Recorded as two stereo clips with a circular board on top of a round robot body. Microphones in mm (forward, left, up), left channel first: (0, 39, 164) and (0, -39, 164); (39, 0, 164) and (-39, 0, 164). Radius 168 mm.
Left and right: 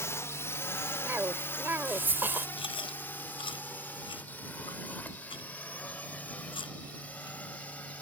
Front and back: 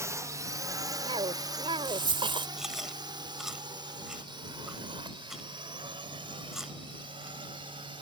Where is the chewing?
95° left.